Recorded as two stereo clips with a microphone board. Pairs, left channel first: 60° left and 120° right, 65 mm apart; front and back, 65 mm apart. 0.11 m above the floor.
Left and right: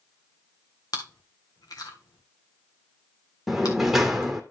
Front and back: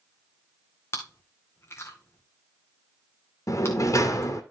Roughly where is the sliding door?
Ahead right.